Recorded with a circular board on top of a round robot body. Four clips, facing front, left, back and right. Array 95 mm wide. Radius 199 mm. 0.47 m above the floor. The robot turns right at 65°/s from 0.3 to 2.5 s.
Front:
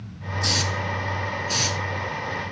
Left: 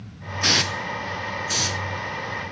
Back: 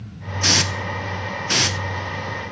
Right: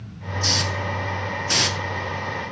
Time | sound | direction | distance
0.4 | a hiss | 125° left | 1.1 m